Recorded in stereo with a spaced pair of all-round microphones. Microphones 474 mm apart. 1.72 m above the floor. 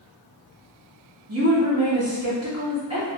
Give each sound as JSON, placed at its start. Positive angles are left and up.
{"t": 1.3, "sound": "a woman speaking", "side_deg": -30, "distance_m": 0.9}